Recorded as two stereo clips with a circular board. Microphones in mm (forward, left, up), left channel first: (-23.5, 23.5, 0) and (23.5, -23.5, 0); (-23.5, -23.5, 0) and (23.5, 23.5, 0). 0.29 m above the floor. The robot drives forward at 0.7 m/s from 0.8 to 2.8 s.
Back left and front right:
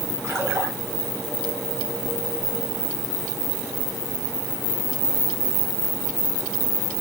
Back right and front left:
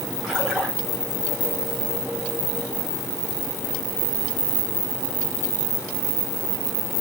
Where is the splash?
25° right, 1.8 m.